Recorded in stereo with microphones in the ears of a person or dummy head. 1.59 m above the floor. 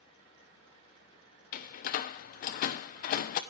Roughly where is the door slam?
Left.